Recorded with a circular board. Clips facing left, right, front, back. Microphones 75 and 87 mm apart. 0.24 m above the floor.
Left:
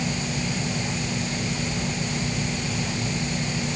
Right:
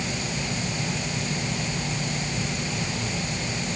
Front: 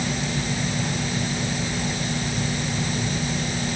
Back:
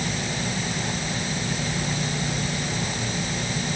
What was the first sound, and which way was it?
Only background noise.